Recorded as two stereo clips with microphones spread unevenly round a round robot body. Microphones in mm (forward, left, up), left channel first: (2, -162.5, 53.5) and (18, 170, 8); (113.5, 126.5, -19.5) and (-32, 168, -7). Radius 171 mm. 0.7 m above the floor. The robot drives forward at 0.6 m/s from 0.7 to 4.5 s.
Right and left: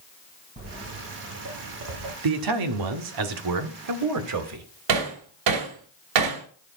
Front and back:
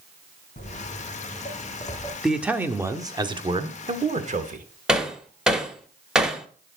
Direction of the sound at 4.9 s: 75° left.